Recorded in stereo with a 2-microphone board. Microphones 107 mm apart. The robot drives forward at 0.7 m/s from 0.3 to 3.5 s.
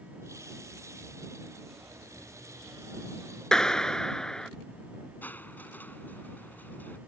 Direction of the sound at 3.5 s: 5° left (ahead or behind).